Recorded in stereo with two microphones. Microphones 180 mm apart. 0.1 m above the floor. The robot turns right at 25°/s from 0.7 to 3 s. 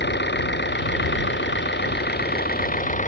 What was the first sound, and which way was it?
An engine running, 75° left.